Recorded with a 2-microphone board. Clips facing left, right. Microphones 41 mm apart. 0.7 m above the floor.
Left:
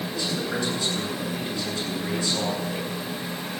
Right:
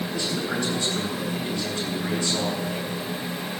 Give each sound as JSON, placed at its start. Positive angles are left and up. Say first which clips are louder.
{"t": 0.1, "sound": "a man speaking", "louder": "even", "side_deg": -45, "distance_m": 9.5}